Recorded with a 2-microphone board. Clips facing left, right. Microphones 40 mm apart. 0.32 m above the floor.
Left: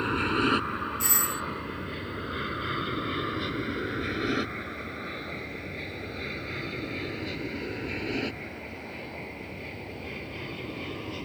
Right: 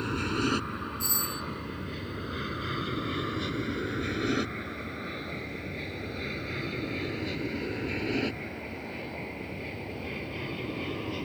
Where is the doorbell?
65° left (ahead or behind).